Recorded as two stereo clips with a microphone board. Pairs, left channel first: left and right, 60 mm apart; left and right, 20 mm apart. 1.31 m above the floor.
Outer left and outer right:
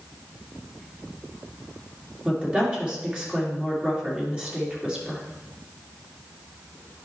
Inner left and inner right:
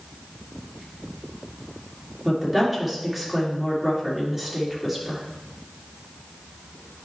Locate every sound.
2.2 s a woman speaking: 20° right (ahead or behind), 2.5 m